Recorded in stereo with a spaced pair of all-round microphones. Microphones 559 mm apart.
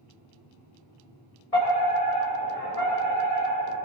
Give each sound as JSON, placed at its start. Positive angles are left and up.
{"t": 1.5, "sound": "a fire alarm", "side_deg": 85, "distance_m": 8.0}